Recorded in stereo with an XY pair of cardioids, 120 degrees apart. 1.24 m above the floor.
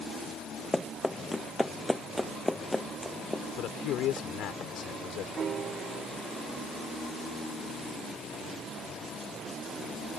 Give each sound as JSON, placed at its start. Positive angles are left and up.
{"t": 0.7, "sound": "running footsteps", "azimuth_deg": 5}
{"t": 3.6, "sound": "a man speaking", "azimuth_deg": 70}
{"t": 5.4, "sound": "a piano", "azimuth_deg": -40}